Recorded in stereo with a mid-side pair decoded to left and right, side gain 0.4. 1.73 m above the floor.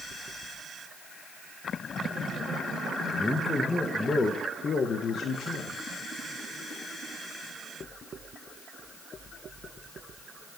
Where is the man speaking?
10° left, 2 m; by 5.8 s 80° left, 1.7 m.